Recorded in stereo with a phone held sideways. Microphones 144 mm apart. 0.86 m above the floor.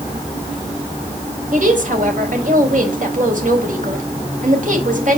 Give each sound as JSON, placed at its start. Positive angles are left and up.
{"t": 1.5, "sound": "a woman speaking", "side_deg": -65, "distance_m": 4.0}